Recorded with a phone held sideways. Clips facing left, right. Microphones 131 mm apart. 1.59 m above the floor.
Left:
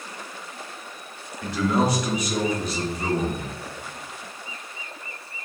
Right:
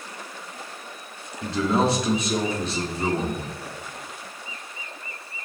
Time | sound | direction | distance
1.4 | a man speaking | 30° right (ahead or behind) | 1.0 m